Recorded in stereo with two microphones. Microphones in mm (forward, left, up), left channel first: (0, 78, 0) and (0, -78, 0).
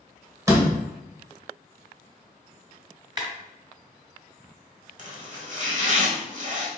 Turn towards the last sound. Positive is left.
turn(degrees=-55)  # may be behind; listen again after turning